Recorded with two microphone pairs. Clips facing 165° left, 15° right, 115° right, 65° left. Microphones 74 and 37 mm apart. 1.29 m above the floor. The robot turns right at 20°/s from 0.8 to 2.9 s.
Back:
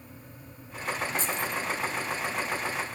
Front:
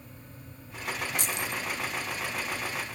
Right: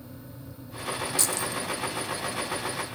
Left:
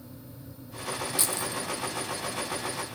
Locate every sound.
1.2 s keys jangling: 5° right, 0.9 m; by 1.6 s 5° left, 0.9 m